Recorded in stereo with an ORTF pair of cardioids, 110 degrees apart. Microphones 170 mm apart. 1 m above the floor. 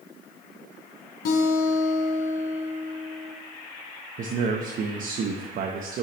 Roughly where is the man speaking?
Ahead right.